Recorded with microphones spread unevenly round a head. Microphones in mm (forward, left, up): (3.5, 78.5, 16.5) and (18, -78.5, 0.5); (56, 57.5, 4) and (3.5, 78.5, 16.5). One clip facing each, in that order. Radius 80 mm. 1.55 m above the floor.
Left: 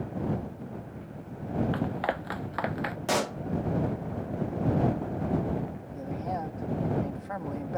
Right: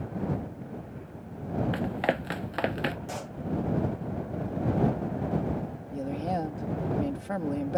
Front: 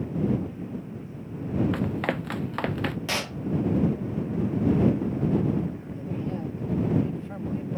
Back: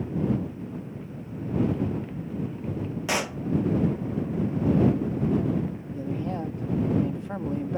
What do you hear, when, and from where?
1.7 s running footsteps: 20° right; by 3.0 s 30° right
3.1 s a pop: 85° left
5.9 s a woman speaking: 140° right